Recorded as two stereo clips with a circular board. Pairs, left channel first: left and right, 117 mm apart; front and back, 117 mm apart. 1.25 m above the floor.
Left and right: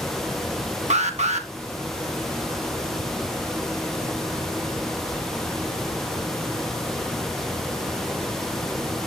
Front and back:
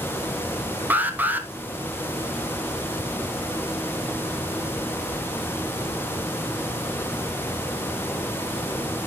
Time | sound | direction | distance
0.9 | an alarm | 105° right | 1.2 m